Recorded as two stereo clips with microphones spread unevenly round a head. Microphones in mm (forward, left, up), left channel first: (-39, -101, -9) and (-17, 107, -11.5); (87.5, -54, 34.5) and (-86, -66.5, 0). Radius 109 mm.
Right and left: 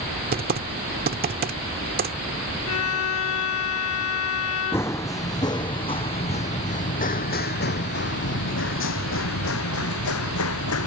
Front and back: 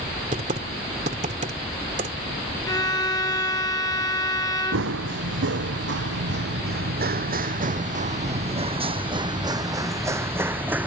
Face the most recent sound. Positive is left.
turn(degrees=-90)